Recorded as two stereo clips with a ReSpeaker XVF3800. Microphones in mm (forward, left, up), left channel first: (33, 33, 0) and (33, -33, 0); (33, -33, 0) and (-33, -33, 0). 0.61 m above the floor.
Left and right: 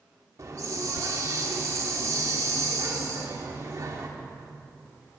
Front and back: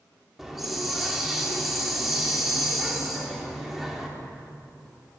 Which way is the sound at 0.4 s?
95° right.